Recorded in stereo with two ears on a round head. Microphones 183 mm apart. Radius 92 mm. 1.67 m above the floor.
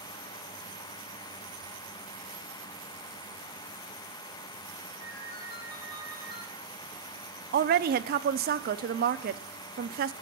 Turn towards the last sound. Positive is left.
turn(degrees=-45)  # may be behind; listen again after turning